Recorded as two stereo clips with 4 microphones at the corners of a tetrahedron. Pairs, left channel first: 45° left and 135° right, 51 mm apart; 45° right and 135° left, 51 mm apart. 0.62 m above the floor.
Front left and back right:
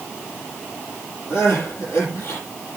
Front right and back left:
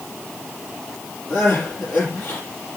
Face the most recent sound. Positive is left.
turn(degrees=5)